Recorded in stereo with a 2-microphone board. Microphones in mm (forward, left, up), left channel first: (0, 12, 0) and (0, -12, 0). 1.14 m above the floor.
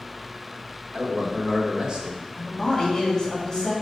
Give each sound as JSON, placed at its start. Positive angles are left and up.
{"t": 0.9, "sound": "a man speaking", "side_deg": -35, "distance_m": 1.7}
{"t": 2.4, "sound": "a man speaking", "side_deg": 30, "distance_m": 3.0}